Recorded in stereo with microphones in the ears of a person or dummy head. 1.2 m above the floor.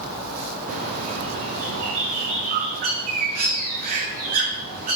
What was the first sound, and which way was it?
A bird, 45° right (ahead or behind).